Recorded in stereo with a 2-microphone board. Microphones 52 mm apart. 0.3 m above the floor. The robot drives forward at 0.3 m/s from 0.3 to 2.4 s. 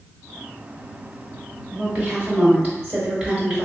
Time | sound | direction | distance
1.7 | a woman speaking | 30° right (ahead or behind) | 1.1 m